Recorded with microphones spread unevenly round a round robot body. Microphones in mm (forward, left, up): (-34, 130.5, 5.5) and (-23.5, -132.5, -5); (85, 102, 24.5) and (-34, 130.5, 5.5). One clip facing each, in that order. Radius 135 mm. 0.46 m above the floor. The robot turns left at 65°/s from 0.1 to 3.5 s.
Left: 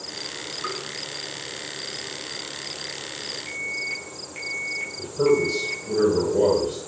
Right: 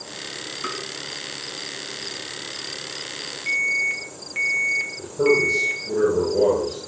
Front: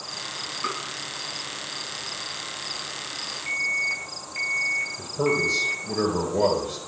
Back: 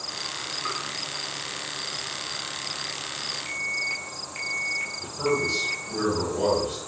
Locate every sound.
0.6 s tapping: 35° right, 4 m; by 0.8 s 45° right, 4 m
3.5 s an alarm: 130° right, 3.5 m; by 5.8 s 135° right, 3.5 m
5.0 s a man speaking: 5° left, 8 m